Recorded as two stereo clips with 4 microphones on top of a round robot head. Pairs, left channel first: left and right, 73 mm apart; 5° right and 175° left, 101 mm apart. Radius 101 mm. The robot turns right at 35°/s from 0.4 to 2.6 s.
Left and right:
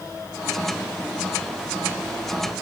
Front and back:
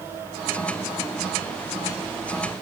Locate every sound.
Only background noise.